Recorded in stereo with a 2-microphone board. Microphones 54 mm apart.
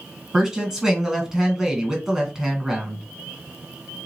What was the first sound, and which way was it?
A woman speaking, 10° right (ahead or behind).